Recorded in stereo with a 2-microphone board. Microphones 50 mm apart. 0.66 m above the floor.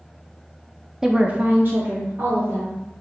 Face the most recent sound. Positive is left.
turn(degrees=-45)  # may be behind; listen again after turning